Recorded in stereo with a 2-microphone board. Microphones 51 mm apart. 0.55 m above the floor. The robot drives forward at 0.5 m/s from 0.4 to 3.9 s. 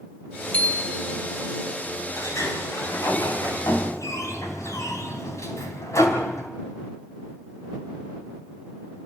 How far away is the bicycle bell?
About 2 m.